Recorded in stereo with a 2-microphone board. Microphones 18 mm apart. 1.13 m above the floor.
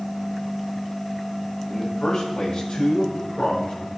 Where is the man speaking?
60° left (ahead or behind), 5 m; by 3.9 s 65° left (ahead or behind), 4 m.